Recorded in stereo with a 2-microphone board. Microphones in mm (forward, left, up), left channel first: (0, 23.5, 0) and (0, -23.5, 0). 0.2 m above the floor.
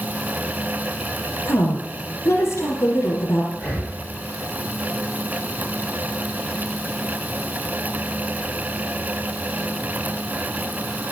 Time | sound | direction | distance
1.4 | a woman speaking | 75° left (ahead or behind) | 5 m
3.5 | breathing | 10° left (ahead or behind) | 8 m